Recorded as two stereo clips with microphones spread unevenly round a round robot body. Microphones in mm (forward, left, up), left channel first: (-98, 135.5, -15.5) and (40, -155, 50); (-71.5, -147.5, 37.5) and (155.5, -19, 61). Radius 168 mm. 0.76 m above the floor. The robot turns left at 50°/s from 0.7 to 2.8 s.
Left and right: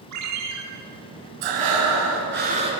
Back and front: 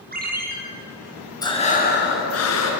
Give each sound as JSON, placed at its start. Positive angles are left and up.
{"t": 0.1, "sound": "a ringtone", "azimuth_deg": -25, "distance_m": 7.0}
{"t": 1.4, "sound": "breathing", "azimuth_deg": -75, "distance_m": 5.5}